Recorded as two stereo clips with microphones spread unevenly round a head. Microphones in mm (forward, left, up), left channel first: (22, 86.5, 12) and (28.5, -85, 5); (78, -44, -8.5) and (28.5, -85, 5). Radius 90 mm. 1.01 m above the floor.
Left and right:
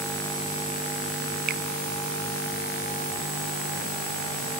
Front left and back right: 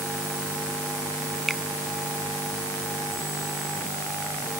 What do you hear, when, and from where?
1.5 s a finger snap: 50° right